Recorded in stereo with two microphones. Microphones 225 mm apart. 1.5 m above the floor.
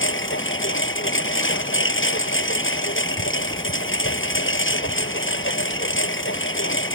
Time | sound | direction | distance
0.0 | a lawn mower | 70° left (ahead or behind) | ?